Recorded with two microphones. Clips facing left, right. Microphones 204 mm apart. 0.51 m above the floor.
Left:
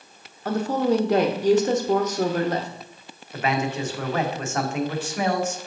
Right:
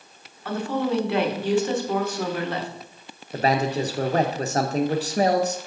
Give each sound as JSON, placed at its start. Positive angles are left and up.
{"t": 0.5, "sound": "a woman speaking", "side_deg": 40, "distance_m": 0.9}
{"t": 3.3, "sound": "a man speaking", "side_deg": -35, "distance_m": 0.8}